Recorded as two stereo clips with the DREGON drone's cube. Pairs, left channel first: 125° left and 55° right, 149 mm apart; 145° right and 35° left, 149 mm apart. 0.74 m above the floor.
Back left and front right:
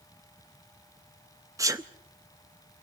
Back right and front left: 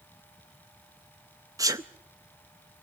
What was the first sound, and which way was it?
A sneeze, 10° right.